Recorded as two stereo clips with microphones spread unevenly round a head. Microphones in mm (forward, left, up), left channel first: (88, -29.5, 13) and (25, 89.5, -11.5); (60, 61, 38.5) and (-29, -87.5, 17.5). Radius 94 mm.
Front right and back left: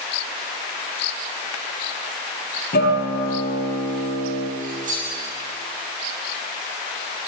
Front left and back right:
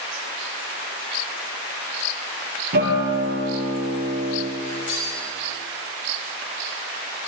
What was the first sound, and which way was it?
A guitar, 90° right.